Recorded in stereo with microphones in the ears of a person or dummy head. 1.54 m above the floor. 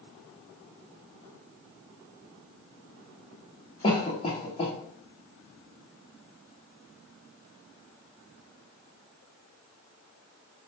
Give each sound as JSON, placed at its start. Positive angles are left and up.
{"t": 3.8, "sound": "a cough", "side_deg": 25, "distance_m": 0.8}